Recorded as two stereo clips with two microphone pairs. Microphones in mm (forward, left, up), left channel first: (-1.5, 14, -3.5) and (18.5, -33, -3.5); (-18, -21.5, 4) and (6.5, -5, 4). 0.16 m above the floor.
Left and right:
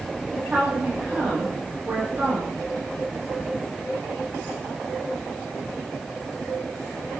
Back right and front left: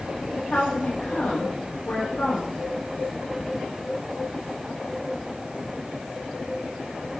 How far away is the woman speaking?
About 9 m.